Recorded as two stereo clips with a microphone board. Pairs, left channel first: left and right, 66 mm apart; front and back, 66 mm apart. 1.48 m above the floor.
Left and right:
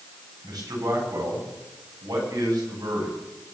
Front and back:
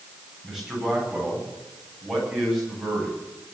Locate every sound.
0.4 s a man speaking: 95° right, 10 m